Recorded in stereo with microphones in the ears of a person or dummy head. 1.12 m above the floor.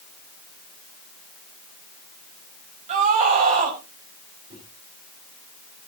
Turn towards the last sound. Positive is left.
turn(degrees=-35)  # may be behind; listen again after turning